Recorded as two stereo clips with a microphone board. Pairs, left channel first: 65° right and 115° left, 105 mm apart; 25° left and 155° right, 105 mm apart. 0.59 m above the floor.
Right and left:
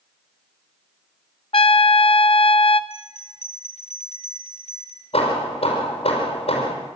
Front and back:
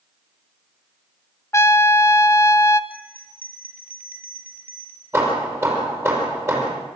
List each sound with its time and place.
1.5 s a trumpet: 40° right, 0.8 m
2.9 s a bell: 85° right, 3 m
5.1 s hammering: 95° right, 5.5 m